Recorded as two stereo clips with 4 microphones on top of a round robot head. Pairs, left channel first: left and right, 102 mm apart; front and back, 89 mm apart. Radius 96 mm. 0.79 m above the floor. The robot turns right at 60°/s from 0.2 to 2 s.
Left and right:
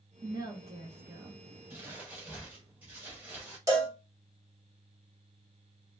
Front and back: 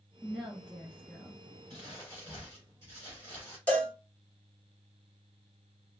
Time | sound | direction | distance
0.2 | a woman speaking | 100° right | 0.8 m
1.7 | crumpling | 60° right | 0.6 m
3.7 | a cowbell | 60° right | 1.1 m